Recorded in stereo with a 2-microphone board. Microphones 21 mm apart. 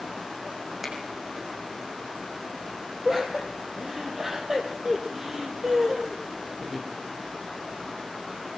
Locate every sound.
0.8 s a finger snap: 15° right (ahead or behind), 6.5 m
3.0 s laughter: 20° right (ahead or behind), 6 m